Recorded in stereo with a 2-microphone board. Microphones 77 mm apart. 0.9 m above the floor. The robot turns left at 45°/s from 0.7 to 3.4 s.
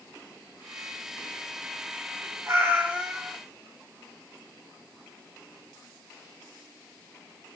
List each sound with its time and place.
2.5 s a cat meowing: 140° right, 0.8 m; by 3.4 s straight behind, 0.8 m